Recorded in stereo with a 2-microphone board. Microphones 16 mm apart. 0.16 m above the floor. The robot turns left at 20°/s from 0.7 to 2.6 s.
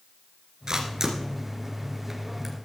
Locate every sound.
0.7 s a camera shutter: 35° right (ahead or behind), 2.5 m; by 2.5 s 5° right (ahead or behind), 2.5 m